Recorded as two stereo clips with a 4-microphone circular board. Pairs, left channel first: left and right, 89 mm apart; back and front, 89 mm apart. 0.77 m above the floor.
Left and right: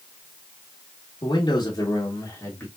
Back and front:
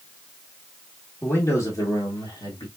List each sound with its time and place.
1.2 s a man speaking: 120° left, 1.4 m; by 2.7 s 160° left, 1.7 m